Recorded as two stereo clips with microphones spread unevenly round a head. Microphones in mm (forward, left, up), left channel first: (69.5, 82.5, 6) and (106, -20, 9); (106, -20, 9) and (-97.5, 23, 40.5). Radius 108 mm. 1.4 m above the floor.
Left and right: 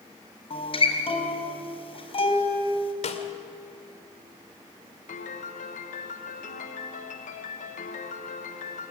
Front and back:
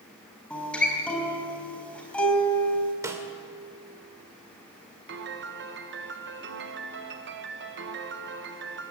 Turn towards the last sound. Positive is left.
turn(degrees=130)